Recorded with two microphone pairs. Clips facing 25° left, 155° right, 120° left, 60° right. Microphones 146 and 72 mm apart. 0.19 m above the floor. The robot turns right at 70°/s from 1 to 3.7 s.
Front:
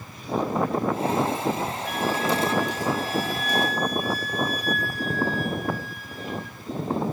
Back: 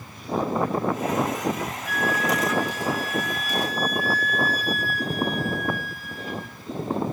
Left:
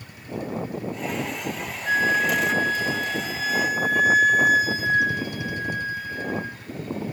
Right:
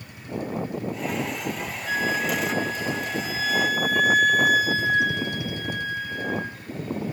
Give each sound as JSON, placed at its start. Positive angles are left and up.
{"t": 1.9, "sound": "a flute", "azimuth_deg": 70, "distance_m": 3.5}